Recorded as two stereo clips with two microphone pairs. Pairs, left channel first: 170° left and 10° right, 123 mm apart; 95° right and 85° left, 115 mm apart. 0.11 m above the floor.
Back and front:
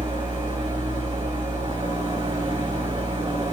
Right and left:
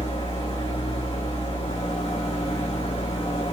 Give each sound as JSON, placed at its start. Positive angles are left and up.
{"t": 0.0, "sound": "an engine running", "azimuth_deg": -60, "distance_m": 5.0}